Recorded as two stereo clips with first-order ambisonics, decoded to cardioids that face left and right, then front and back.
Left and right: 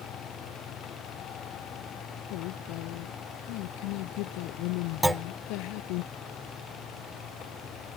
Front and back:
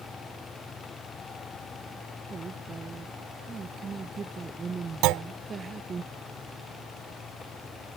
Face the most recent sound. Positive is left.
turn(degrees=-175)